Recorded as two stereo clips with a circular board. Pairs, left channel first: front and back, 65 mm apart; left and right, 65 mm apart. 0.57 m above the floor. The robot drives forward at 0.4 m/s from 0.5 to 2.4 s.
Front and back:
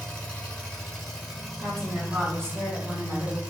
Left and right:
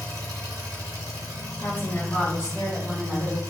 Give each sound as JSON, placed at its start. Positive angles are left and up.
{"t": 0.0, "sound": "an engine running", "azimuth_deg": -75, "distance_m": 1.2}
{"t": 1.6, "sound": "a woman speaking", "azimuth_deg": 150, "distance_m": 1.8}